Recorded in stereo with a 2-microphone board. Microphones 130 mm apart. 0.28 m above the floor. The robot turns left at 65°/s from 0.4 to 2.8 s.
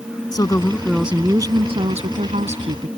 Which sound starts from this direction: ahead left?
A woman speaking, at 0.3 s.